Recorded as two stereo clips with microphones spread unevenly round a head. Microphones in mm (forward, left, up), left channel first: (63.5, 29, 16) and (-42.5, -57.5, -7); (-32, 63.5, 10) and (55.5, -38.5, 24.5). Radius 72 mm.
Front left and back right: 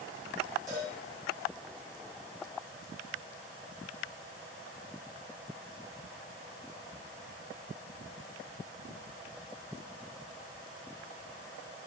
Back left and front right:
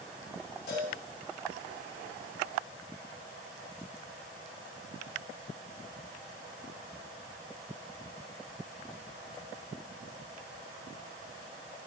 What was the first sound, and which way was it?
A cowbell, 150° left.